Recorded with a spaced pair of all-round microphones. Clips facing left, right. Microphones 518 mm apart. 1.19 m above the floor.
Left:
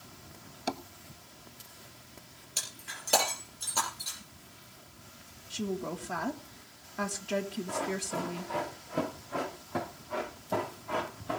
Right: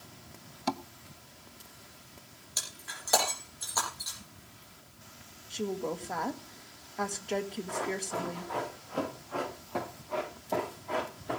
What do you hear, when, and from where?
0.7 s tapping: 20° right (ahead or behind), 0.7 m
2.6 s breaking glass: 50° left (ahead or behind), 5.5 m
5.5 s a woman speaking: 30° left (ahead or behind), 1.7 m
7.7 s running footsteps: 50° left (ahead or behind), 7.5 m; by 11.4 s 25° left (ahead or behind), 8 m